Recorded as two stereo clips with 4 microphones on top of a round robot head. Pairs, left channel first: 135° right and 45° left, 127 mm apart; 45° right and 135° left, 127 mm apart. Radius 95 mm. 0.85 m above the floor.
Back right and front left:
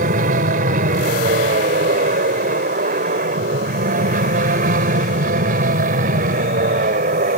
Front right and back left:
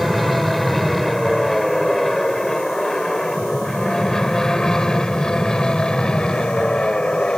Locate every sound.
0.0 s an aircraft: 45° left; by 7.4 s 40° left